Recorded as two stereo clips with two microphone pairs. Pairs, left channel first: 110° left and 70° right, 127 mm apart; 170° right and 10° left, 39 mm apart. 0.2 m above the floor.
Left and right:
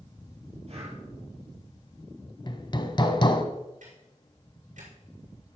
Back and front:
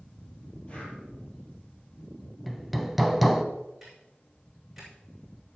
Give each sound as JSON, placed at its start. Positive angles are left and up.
{"t": 0.7, "sound": "breathing", "azimuth_deg": -105, "distance_m": 3.5}
{"t": 2.5, "sound": "hammering", "azimuth_deg": 105, "distance_m": 0.8}
{"t": 3.8, "sound": "ticking", "azimuth_deg": -75, "distance_m": 3.5}